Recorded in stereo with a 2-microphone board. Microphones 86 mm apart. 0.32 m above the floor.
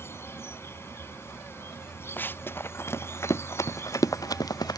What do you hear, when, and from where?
0.0 s an insect: 30° left (ahead or behind)
2.2 s running footsteps: 20° left (ahead or behind); by 4.8 s 50° left (ahead or behind)